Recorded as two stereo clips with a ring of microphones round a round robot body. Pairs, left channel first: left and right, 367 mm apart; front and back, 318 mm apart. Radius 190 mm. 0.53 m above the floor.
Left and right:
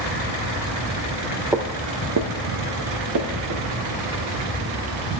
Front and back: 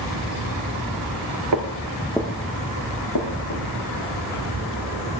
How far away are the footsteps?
About 0.7 m.